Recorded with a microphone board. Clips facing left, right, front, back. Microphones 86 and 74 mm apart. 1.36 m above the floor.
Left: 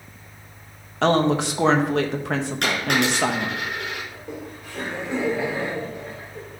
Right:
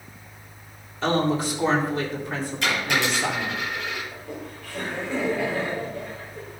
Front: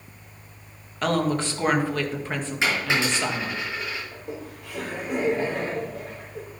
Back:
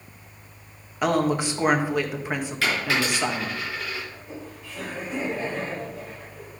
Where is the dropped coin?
65° left, 6.5 m.